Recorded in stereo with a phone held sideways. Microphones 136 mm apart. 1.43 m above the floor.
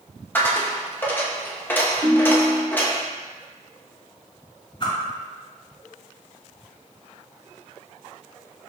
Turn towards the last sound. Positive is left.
turn(degrees=40)  # may be behind; listen again after turning